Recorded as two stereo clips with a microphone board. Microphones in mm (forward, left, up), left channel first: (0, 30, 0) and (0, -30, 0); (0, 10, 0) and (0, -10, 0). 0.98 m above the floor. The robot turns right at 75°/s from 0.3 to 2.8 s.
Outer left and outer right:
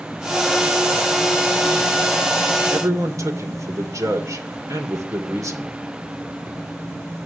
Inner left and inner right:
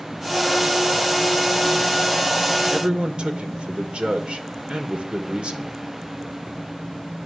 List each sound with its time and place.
2.7 s a man speaking: 55° right (ahead or behind), 3 m; by 5.7 s 65° right (ahead or behind), 3 m